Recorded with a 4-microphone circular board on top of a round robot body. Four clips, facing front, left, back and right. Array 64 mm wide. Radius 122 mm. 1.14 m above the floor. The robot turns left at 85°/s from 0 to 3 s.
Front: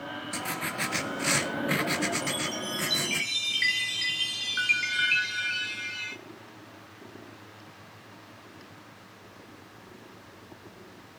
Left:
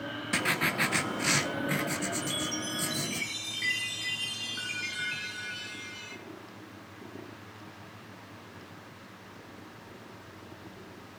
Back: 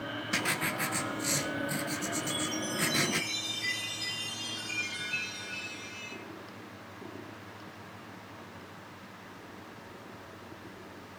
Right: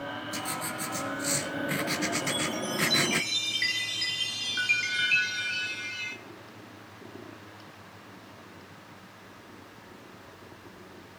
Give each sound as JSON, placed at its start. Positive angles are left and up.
{"t": 0.3, "sound": "writing", "azimuth_deg": 115, "distance_m": 1.2}
{"t": 2.2, "sound": "a chime", "azimuth_deg": 45, "distance_m": 1.1}